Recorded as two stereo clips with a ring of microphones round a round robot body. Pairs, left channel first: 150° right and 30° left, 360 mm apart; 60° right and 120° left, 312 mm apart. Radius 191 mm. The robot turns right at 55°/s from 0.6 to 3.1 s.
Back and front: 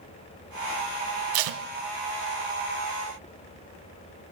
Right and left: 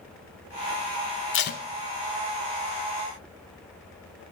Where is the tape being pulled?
5° right, 0.6 m; by 1.6 s 10° left, 0.6 m.